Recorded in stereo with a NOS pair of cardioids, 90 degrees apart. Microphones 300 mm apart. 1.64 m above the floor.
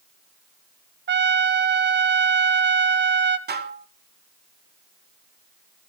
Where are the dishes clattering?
35° right, 2.5 m.